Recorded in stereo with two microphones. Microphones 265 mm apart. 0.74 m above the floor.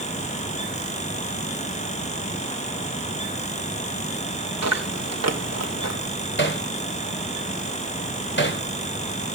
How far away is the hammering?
About 2 m.